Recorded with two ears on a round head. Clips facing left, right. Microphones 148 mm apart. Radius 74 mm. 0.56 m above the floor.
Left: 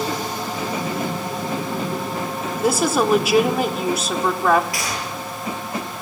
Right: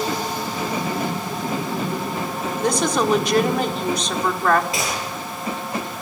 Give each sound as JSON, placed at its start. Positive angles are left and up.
{"t": 2.6, "sound": "a woman speaking", "side_deg": 5, "distance_m": 1.7}
{"t": 4.7, "sound": "a gunshot", "side_deg": -20, "distance_m": 9.0}